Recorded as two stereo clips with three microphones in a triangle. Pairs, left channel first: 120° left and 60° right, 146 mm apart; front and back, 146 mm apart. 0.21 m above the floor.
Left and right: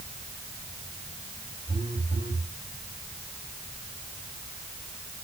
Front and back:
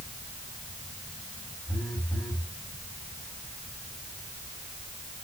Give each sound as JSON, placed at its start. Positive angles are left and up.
{"t": 1.7, "sound": "a phone buzzing", "azimuth_deg": 80, "distance_m": 9.0}